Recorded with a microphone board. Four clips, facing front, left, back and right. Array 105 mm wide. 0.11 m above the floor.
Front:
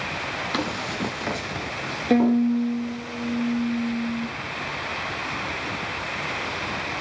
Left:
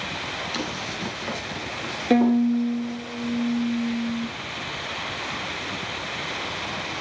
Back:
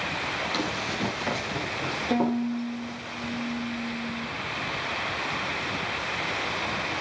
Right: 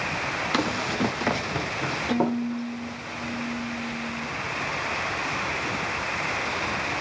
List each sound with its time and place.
0.5 s running footsteps: 65° right, 2.5 m; by 3.0 s 100° right, 5 m
2.1 s a violin: 55° left, 1.0 m